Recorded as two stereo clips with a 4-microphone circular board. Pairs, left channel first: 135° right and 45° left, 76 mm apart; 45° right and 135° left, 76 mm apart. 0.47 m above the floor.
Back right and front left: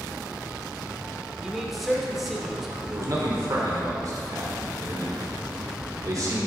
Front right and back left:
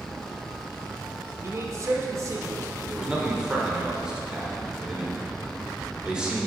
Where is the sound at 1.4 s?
135° left, 1.0 m.